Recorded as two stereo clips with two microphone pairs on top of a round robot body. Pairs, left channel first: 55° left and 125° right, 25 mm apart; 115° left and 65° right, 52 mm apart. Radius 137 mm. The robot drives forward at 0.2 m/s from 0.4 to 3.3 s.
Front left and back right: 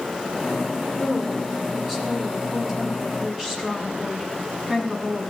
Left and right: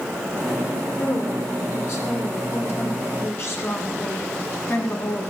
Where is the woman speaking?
150° left, 7 m; by 5.3 s 155° left, 7.5 m.